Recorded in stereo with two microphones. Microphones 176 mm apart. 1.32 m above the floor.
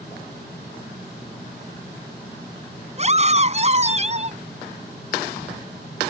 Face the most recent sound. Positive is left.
turn(degrees=-40)  # may be behind; listen again after turning